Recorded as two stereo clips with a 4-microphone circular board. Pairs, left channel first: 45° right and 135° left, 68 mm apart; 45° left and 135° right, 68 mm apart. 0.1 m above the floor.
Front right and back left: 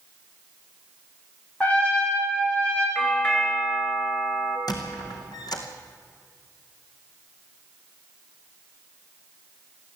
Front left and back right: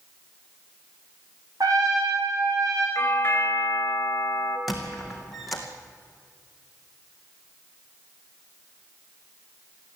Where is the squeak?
45° right, 2.5 m.